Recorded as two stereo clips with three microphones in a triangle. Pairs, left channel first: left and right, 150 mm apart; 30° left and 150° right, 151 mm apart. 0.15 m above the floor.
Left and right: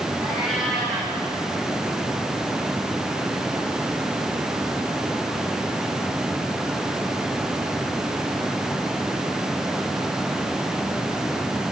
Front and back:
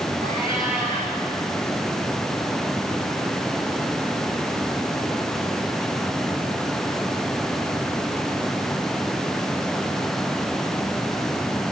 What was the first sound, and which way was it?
A cat meowing, 175° right.